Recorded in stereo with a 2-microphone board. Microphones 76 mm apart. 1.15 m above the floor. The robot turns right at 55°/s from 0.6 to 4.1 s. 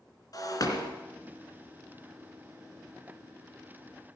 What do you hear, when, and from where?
0.3 s breaking glass: 55° left (ahead or behind), 3 m; by 0.9 s 70° left (ahead or behind), 3 m